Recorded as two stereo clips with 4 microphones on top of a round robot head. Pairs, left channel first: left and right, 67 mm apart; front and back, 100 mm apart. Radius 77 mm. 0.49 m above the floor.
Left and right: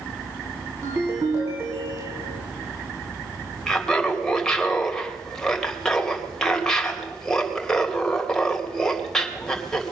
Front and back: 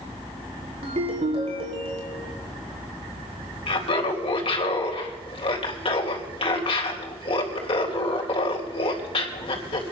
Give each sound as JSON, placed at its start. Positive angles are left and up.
{"t": 0.8, "sound": "a ringtone", "azimuth_deg": -150, "distance_m": 3.0}
{"t": 3.7, "sound": "laughter", "azimuth_deg": 10, "distance_m": 3.0}